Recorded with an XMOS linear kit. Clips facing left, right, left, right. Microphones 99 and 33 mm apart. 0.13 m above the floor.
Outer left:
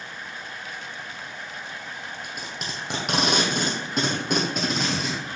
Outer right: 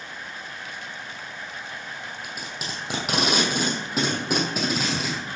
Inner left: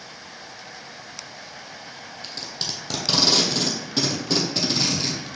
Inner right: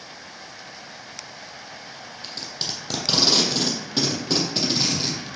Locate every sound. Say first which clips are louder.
2.2 s tape being pulled: even, even; 5° right (ahead or behind), 1.7 m